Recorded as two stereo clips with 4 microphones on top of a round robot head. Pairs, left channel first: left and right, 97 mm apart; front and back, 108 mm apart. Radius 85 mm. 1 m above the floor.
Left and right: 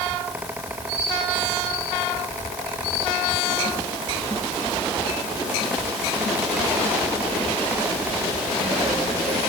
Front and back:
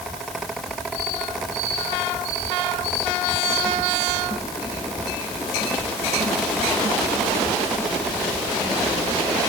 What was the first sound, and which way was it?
Only background noise.